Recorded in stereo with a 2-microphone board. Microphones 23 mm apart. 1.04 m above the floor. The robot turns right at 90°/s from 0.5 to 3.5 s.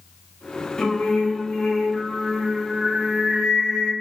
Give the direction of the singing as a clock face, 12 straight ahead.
9 o'clock.